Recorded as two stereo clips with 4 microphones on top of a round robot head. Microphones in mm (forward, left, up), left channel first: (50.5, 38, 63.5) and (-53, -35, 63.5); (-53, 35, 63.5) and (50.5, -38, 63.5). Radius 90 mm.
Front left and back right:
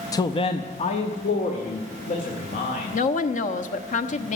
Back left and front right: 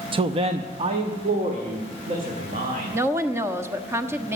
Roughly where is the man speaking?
Ahead.